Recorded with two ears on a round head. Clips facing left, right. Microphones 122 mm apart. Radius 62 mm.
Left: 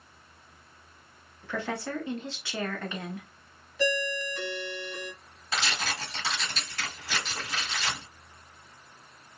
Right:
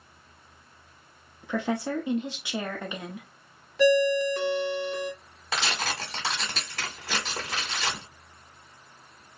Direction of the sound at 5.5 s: 65° right (ahead or behind).